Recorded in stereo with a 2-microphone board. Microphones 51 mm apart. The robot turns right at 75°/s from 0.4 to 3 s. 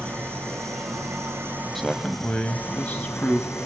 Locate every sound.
0.0 s an engine running: 130° right, 3 m; by 3.7 s 65° left, 3 m
1.8 s a man speaking: 10° left, 1.1 m; by 3.5 s 105° left, 1.1 m